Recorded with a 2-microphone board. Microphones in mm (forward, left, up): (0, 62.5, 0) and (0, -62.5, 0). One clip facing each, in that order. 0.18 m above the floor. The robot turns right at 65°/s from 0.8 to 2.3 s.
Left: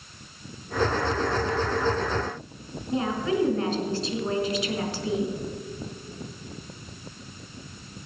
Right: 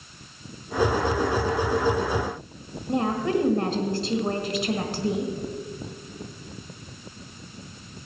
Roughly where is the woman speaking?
Right.